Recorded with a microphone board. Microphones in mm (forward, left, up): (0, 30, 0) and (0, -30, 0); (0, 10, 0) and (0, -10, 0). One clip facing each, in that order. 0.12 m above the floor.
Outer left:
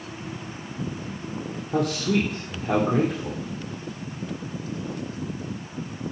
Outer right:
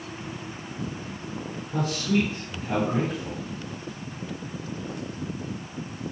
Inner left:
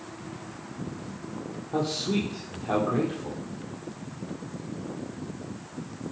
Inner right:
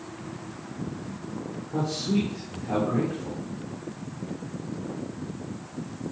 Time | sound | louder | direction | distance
1.7 | a man speaking | outer left 2 dB, even | 70° left (ahead or behind) | 3 m